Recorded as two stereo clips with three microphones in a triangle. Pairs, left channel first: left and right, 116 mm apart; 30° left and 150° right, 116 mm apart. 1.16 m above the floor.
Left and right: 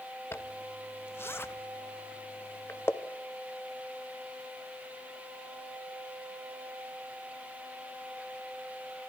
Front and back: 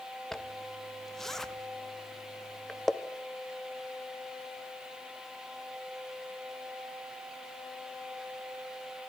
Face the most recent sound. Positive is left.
turn(degrees=110)